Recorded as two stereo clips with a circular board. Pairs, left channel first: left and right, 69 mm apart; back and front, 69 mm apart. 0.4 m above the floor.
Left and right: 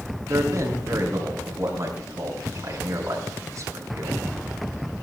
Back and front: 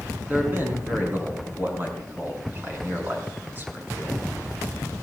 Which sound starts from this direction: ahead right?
A man speaking, at 0.3 s.